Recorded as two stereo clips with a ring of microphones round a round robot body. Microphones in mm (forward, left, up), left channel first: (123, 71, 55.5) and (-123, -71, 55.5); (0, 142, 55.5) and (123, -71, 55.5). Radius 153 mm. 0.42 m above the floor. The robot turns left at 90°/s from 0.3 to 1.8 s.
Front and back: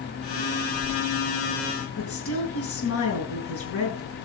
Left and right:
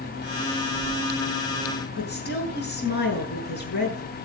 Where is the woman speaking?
70° left, 7.5 m.